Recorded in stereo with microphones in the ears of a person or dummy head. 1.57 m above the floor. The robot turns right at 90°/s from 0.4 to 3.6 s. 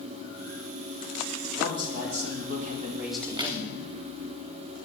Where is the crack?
5° right (ahead or behind), 0.7 m; by 3.6 s 30° right (ahead or behind), 0.7 m.